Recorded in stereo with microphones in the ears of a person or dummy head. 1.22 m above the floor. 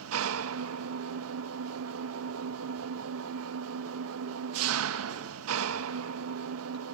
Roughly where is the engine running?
Right.